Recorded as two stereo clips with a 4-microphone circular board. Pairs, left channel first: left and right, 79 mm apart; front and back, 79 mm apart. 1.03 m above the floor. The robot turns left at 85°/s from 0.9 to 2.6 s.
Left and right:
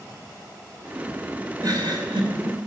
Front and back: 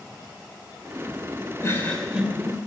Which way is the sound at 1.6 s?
50° right.